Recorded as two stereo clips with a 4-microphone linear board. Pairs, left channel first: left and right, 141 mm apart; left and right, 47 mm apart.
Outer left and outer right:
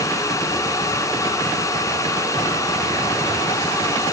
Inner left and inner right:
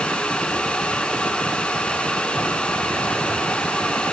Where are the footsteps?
No footsteps in this recording.